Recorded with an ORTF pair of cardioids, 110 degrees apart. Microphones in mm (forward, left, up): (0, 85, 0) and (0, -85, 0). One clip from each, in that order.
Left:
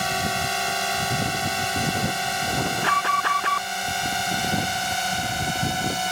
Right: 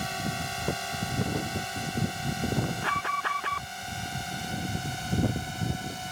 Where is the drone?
55° left; by 6.1 s 65° left.